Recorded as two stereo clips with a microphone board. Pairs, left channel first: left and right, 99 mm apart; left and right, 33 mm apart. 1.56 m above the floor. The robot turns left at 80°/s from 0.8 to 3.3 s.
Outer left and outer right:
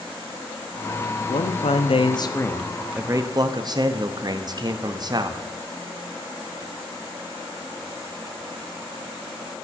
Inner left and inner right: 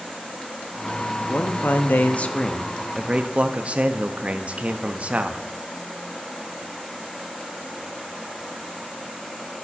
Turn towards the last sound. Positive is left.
turn(degrees=-45)